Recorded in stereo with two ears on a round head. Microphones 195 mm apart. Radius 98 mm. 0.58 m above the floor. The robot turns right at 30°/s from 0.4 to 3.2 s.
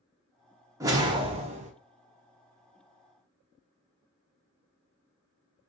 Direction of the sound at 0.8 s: 15° right (ahead or behind).